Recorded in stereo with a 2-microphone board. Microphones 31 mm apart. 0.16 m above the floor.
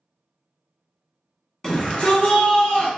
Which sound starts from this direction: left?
A shout, at 1.6 s.